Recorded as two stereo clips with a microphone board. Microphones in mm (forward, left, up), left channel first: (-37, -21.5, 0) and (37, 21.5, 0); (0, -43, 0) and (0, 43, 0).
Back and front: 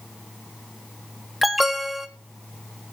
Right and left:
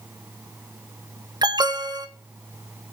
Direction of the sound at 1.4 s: 120° left.